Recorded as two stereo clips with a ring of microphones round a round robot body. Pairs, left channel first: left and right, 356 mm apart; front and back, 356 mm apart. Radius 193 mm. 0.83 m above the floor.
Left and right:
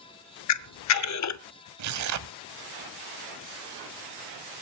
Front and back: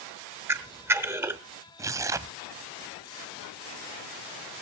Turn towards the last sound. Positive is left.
turn(degrees=-100)